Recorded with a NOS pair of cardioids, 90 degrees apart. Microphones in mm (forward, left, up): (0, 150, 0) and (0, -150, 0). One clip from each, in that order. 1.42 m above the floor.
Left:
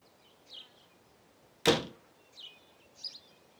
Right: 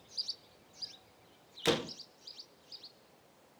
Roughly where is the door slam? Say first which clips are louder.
Left 4 dB; ahead.